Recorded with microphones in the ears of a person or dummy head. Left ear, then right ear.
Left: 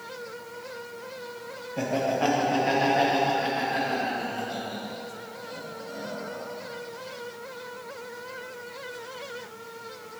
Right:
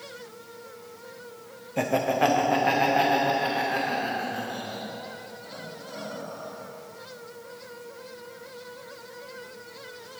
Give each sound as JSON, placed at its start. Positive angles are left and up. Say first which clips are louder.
{"t": 1.8, "sound": "laughter", "louder": "right 3 dB", "side_deg": -25, "distance_m": 0.8}